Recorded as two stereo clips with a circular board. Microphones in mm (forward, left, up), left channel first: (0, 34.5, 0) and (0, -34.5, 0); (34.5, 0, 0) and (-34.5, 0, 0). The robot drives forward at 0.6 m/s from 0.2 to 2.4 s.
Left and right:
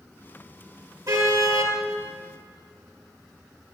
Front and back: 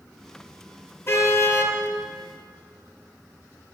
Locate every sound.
1.1 s a car horn: 60° right, 2.5 m; by 1.8 s 65° right, 2.5 m